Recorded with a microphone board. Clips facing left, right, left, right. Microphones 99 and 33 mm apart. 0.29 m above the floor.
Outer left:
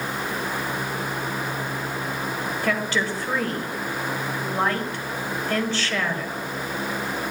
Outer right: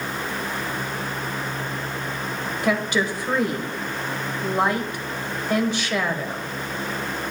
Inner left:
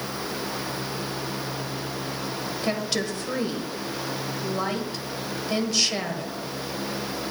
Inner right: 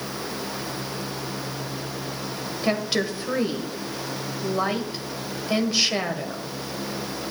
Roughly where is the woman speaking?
Centre.